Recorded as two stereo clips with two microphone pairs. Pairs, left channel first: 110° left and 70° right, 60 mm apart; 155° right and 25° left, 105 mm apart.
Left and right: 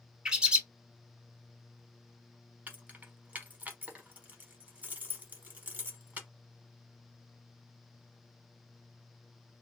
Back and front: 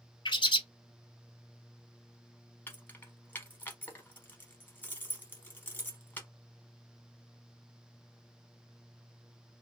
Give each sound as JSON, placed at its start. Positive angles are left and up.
{"t": 0.2, "sound": "a bird", "azimuth_deg": -145, "distance_m": 0.6}
{"t": 2.7, "sound": "keys jangling", "azimuth_deg": -105, "distance_m": 0.8}